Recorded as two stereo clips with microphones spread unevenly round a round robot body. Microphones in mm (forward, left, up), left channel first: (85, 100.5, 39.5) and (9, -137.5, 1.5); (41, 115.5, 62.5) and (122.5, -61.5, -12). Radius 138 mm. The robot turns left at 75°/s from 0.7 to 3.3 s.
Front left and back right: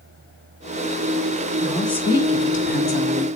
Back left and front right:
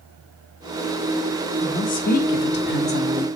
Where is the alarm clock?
I don't hear an alarm clock.